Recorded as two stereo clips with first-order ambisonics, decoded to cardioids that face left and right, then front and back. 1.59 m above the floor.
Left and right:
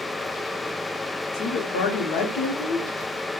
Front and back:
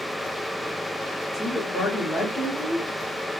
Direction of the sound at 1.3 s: 75° left.